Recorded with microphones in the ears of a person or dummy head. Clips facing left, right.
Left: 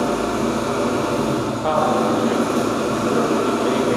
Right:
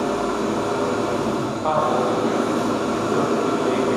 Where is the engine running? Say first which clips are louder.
Left 2 dB; 25° left (ahead or behind), 1.3 m.